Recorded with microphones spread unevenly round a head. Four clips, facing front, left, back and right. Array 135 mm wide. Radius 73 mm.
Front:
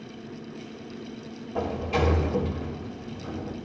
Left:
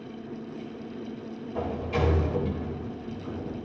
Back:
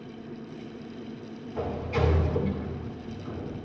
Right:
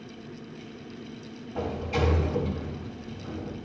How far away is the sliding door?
About 4 m.